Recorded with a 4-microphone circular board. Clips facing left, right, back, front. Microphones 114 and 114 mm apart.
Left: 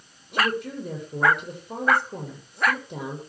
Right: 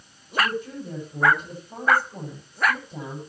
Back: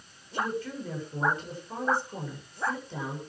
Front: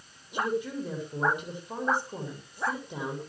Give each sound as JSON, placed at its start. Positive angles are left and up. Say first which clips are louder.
{"t": 0.3, "sound": "a woman speaking", "louder": "even, front 2 dB", "azimuth_deg": 75, "distance_m": 8.0}